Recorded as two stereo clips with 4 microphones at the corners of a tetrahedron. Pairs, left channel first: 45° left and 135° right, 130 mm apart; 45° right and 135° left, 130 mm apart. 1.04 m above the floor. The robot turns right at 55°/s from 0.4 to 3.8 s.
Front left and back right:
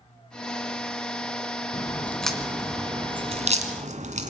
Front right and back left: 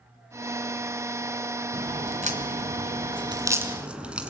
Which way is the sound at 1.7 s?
100° left.